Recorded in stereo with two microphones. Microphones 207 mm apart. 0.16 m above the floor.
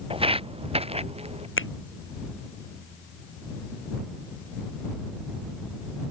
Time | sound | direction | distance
0.1 | footsteps | 25° right (ahead or behind) | ?
1.6 | a finger snap | 75° left (ahead or behind) | ?